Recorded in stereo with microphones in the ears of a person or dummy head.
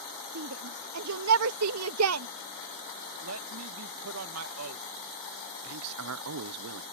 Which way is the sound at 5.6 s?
80° right.